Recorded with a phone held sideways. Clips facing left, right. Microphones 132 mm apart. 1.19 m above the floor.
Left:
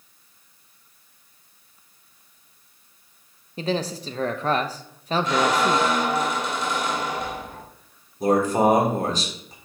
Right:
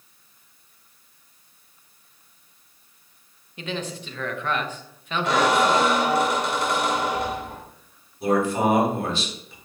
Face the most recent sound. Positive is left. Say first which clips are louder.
# left 2 dB
turn(degrees=40)  # may be behind; listen again after turning